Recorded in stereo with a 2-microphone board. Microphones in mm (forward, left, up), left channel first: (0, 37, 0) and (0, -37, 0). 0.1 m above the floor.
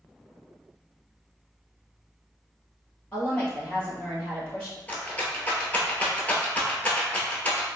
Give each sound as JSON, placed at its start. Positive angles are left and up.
{"t": 3.1, "sound": "a woman speaking", "side_deg": 15, "distance_m": 2.0}
{"t": 4.9, "sound": "a rattle", "side_deg": 20, "distance_m": 0.8}